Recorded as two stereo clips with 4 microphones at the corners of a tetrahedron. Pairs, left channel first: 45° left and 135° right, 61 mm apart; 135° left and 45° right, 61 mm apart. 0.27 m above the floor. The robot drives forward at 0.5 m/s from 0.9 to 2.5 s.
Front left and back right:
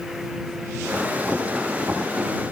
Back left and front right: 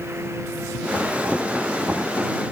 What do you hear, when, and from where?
Only background noise.